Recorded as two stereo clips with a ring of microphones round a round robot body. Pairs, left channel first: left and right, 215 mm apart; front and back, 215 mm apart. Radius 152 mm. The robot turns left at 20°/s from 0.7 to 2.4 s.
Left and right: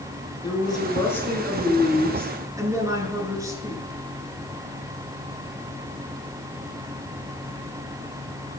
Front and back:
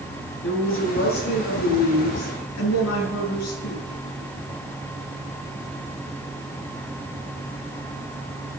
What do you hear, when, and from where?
0.4 s a woman speaking: 20° left, 8.5 m; by 4.0 s 15° right, 8.5 m